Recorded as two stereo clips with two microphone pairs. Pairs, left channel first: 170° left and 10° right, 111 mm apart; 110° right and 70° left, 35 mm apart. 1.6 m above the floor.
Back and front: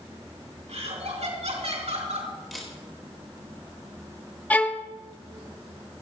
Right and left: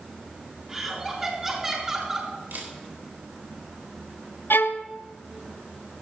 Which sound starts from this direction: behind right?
A violin, at 4.5 s.